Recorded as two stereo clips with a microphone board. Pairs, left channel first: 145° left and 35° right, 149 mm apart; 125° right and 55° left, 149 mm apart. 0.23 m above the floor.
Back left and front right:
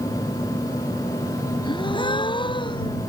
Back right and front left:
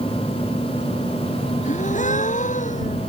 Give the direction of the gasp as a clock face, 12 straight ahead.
5 o'clock.